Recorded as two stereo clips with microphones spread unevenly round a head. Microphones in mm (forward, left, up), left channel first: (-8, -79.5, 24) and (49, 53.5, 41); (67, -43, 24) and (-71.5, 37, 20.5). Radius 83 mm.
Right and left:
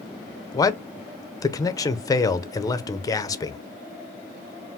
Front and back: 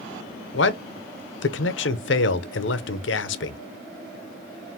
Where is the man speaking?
45° right, 0.7 m.